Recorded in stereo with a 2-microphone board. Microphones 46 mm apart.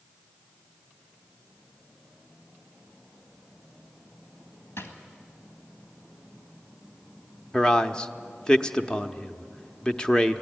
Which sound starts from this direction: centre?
A man speaking, at 7.5 s.